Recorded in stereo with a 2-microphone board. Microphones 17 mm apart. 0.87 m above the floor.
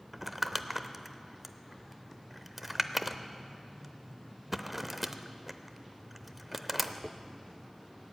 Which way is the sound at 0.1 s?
5° right (ahead or behind).